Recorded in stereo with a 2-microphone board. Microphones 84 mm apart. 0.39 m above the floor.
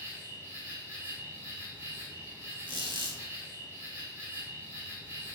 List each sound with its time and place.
0.0 s an insect: 35° right (ahead or behind), 1.5 m
2.7 s a squeak: 80° right, 1.1 m